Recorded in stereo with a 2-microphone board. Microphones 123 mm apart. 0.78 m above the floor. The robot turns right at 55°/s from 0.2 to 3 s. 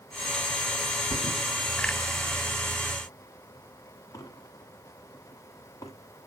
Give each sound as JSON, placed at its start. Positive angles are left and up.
{"t": 1.1, "sound": "a thud", "side_deg": 45, "distance_m": 1.5}